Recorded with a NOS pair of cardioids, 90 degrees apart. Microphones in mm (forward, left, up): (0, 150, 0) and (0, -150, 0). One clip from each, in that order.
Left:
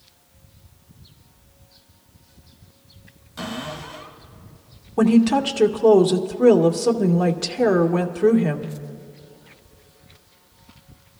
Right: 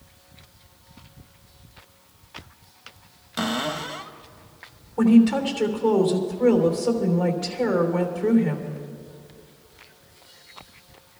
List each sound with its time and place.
3.4 s a cupboard door: 55° right, 1.2 m
5.0 s a woman speaking: 55° left, 1.6 m